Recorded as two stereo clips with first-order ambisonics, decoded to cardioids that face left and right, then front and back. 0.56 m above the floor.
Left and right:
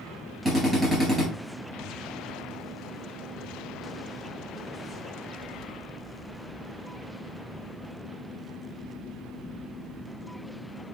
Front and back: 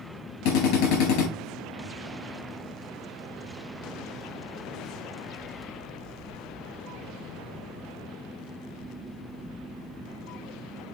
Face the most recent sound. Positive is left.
turn(degrees=-10)